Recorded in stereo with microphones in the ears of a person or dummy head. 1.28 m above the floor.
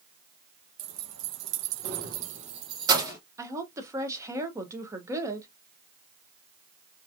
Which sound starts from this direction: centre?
A woman speaking, at 3.4 s.